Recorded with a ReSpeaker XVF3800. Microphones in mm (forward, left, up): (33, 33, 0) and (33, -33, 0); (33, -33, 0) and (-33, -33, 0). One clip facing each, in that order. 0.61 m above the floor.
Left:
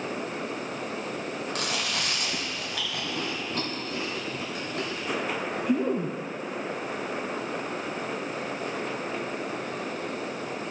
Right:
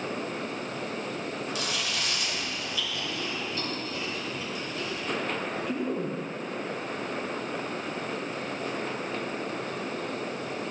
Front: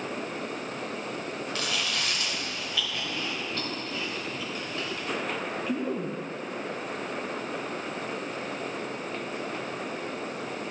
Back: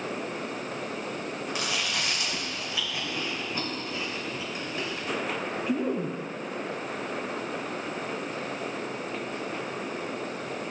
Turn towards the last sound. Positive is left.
turn(degrees=110)